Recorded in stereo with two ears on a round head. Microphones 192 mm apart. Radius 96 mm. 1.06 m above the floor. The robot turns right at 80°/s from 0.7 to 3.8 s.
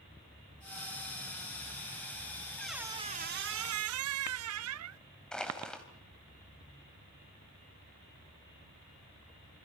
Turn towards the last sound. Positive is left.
turn(degrees=5)  # may be behind; listen again after turning